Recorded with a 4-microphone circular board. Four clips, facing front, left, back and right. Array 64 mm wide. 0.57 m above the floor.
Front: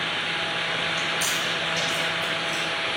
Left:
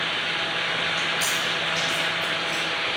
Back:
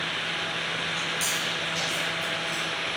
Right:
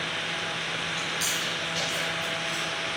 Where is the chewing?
60° right, 3.5 m.